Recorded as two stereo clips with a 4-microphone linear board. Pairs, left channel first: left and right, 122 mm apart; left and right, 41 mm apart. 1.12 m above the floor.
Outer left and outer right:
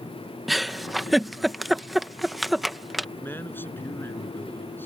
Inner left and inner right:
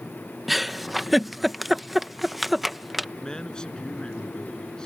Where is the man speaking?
15° left (ahead or behind).